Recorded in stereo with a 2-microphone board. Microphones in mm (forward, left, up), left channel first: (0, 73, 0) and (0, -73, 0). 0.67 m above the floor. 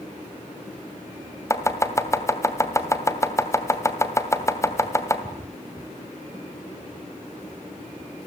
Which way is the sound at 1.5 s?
20° left (ahead or behind).